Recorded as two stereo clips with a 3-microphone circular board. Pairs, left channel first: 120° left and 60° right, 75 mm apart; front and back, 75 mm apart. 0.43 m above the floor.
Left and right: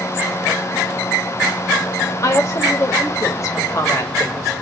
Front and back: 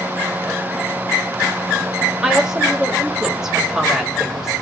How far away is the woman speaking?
About 2 m.